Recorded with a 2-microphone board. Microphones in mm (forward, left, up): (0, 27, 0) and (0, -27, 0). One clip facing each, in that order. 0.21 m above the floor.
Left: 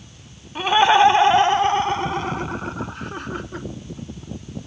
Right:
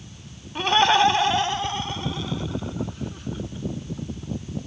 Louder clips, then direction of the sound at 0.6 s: Left 4 dB; 5° left (ahead or behind).